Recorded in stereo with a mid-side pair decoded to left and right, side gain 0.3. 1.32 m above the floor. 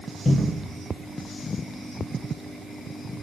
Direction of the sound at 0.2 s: 45° left.